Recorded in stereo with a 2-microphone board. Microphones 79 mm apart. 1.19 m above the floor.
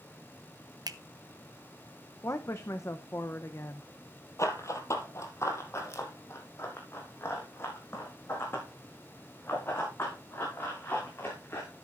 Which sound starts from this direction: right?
A finger snap, at 0.9 s.